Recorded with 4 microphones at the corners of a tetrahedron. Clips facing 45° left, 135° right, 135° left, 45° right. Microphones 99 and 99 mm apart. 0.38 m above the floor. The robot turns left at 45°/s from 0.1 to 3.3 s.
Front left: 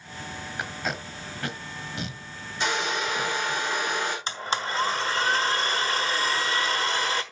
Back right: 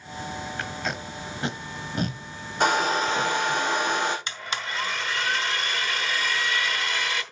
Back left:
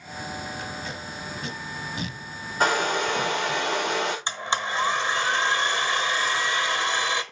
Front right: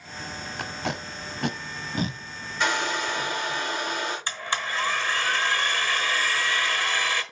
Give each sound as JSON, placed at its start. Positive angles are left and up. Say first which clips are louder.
{"t": 0.6, "sound": "tape being pulled", "louder": "front left 3 dB, front right 3 dB", "azimuth_deg": -30, "distance_m": 1.0}
{"t": 2.6, "sound": "a hair dryer", "louder": "back right 5 dB, back left 3 dB", "azimuth_deg": -175, "distance_m": 3.5}
{"t": 4.3, "sound": "a blender", "louder": "front left 4 dB, back left 3 dB", "azimuth_deg": 80, "distance_m": 1.0}